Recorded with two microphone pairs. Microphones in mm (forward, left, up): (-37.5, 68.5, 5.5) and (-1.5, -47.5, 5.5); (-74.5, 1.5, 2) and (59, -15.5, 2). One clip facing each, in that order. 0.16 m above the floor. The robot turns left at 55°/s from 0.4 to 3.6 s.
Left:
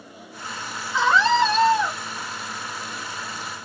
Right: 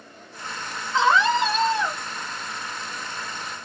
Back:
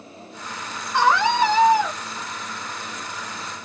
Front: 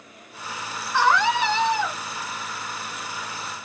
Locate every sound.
0.9 s a scream: 130° right, 1.7 m; by 2.0 s 175° left, 1.7 m